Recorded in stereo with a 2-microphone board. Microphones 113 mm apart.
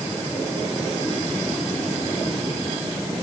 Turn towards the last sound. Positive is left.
No sound to turn to.